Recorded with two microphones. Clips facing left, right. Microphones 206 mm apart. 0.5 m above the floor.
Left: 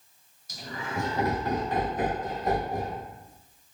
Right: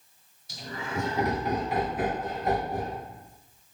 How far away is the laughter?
About 1.3 m.